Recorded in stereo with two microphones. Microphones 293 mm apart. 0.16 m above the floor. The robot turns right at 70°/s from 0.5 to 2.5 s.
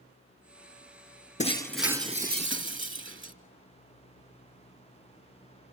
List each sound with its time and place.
1.4 s breaking glass: 150° left, 1.3 m; by 3.3 s 130° right, 1.3 m